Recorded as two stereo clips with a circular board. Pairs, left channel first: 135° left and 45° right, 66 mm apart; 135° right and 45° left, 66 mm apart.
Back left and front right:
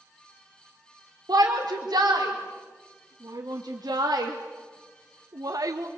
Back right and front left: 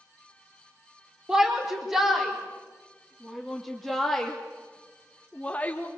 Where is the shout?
30° right, 4 m; by 5.9 s 75° right, 1.4 m.